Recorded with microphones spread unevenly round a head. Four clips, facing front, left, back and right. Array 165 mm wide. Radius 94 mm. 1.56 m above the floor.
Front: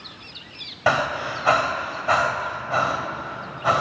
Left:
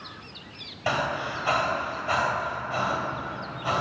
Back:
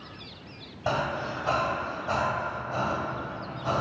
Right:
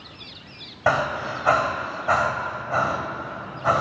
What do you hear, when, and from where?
0.9 s breathing: 30° right, 2 m